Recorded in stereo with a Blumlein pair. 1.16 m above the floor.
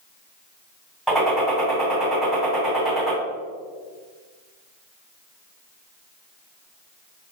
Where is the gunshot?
5° right, 1.7 m.